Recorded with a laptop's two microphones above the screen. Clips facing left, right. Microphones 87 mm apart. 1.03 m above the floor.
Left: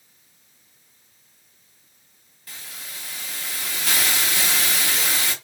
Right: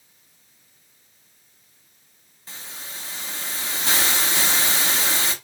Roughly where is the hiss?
Right.